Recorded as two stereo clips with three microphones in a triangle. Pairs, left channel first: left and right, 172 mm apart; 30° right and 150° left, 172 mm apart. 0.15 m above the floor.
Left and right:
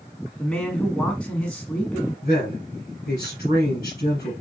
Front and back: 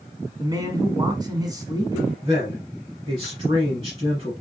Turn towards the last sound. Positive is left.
turn(degrees=95)